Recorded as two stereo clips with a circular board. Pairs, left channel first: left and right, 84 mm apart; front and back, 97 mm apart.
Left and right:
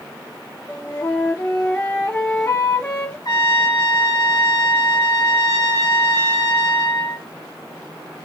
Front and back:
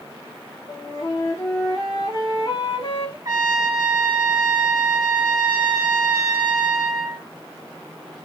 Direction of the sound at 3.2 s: 130° left.